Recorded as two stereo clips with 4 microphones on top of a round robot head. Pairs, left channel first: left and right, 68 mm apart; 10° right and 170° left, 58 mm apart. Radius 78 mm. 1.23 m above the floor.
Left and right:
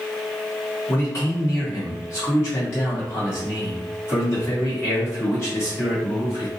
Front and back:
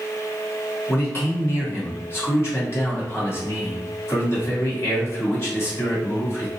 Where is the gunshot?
No gunshot in this recording.